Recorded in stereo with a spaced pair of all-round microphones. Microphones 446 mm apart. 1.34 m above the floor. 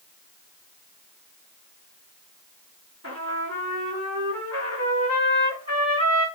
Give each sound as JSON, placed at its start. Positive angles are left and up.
{"t": 3.0, "sound": "a trumpet", "side_deg": -35, "distance_m": 2.0}